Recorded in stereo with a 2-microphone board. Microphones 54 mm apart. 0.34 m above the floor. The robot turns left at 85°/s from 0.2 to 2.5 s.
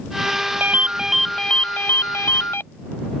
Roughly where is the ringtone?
Behind right.